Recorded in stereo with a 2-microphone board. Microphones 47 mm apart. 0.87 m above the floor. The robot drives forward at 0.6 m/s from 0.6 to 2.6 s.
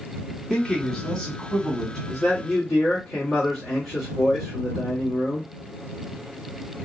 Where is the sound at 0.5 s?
10° left (ahead or behind), 1.1 m; by 2.0 s 5° left (ahead or behind), 1.8 m.